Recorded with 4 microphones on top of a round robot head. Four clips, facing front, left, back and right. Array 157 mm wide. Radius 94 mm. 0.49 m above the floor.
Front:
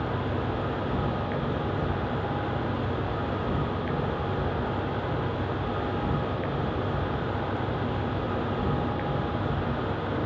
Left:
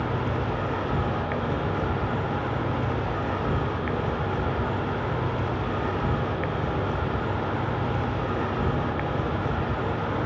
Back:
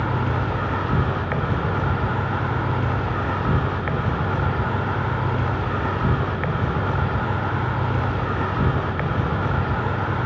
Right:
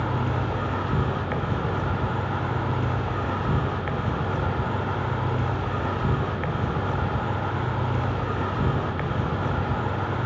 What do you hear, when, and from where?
0.0 s an insect: 165° right, 0.9 m